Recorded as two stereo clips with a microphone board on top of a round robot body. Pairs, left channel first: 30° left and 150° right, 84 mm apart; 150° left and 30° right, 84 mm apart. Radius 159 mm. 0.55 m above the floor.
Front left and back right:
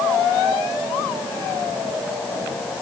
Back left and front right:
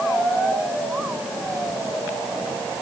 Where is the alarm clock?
I don't hear an alarm clock.